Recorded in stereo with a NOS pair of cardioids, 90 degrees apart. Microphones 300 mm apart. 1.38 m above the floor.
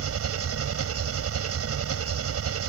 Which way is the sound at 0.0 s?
50° right.